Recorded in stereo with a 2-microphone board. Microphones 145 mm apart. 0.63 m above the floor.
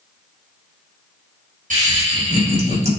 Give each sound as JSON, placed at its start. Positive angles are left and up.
{"t": 1.7, "sound": "laughter", "side_deg": -65, "distance_m": 3.5}